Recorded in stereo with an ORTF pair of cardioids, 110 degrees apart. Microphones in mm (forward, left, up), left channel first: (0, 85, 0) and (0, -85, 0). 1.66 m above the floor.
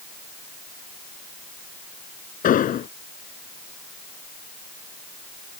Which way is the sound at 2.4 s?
55° left.